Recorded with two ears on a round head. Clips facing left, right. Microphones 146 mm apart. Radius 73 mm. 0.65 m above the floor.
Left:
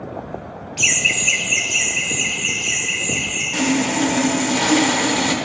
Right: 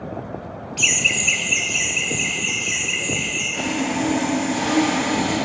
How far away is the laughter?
About 0.5 m.